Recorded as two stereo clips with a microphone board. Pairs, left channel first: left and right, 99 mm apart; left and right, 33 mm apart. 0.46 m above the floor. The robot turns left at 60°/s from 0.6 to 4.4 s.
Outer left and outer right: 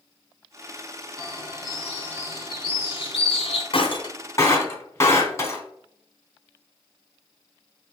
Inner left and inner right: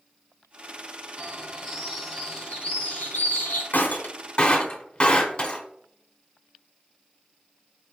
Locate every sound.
1.2 s a bird: 140° right, 1.8 m; by 3.6 s 70° left, 1.8 m
3.7 s breaking glass: 70° left (ahead or behind), 0.9 m; by 5.6 s 30° left (ahead or behind), 0.9 m